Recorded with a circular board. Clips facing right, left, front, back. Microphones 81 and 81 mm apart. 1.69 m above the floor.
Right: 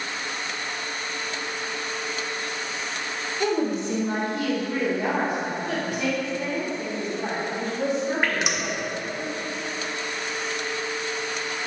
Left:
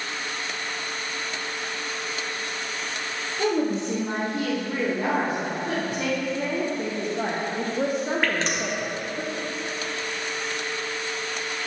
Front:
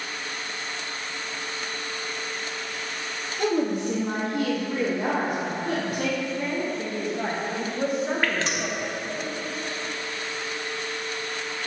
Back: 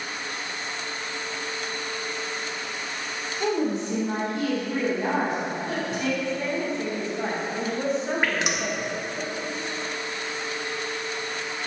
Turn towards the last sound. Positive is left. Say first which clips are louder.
# even, even
turn(degrees=-140)